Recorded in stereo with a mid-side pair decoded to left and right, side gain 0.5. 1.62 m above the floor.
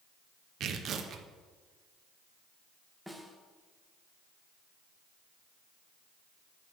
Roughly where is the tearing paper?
Ahead right.